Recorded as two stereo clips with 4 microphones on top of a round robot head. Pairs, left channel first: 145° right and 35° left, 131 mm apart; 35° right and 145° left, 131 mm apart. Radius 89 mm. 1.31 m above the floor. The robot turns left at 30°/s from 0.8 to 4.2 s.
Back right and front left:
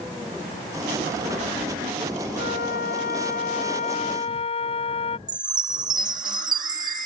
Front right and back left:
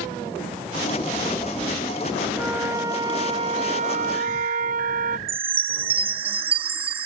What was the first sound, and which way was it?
A flute, 135° right.